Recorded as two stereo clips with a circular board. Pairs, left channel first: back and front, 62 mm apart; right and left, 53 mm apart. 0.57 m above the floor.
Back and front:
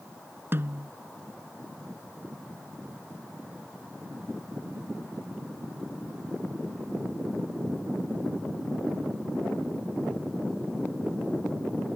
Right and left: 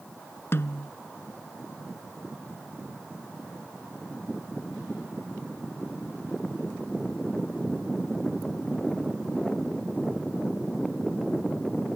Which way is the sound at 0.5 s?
50° right.